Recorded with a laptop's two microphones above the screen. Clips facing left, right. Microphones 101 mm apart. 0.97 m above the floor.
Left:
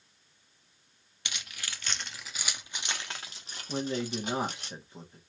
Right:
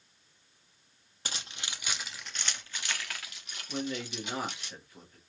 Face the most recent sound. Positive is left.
turn(degrees=25)  # may be behind; listen again after turning